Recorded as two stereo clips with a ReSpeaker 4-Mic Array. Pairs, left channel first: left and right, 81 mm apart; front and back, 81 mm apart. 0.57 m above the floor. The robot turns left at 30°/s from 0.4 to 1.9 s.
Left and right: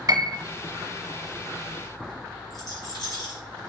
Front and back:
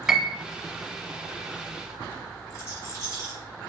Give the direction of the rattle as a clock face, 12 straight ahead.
10 o'clock.